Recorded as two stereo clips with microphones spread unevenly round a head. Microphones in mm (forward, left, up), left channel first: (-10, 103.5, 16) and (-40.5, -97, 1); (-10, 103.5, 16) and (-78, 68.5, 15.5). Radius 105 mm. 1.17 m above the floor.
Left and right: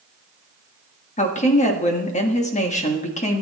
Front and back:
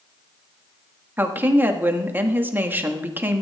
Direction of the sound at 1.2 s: 140° left.